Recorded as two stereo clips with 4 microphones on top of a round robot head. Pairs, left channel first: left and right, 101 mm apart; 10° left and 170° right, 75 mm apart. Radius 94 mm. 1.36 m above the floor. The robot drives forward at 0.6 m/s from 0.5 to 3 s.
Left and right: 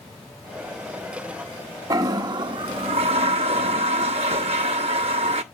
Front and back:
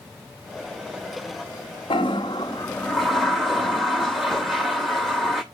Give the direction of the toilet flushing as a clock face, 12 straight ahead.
1 o'clock.